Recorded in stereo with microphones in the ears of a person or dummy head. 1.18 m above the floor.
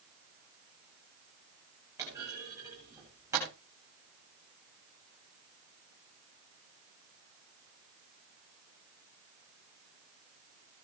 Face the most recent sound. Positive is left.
turn(degrees=-15)  # may be behind; listen again after turning